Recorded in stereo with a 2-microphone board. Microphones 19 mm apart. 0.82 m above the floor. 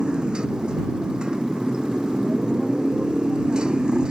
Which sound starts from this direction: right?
A motorcycle, at 0.0 s.